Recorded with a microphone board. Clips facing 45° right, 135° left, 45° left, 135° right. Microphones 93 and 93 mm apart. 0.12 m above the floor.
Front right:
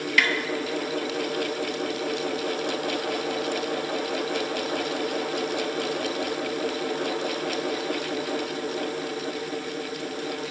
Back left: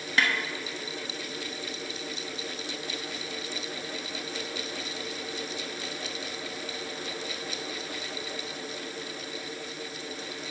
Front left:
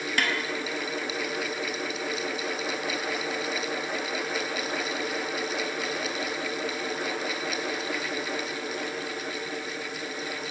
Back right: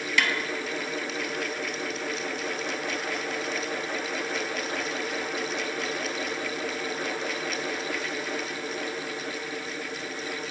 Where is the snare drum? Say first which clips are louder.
Front right 2 dB, back right 2 dB; 85° left, 0.9 m.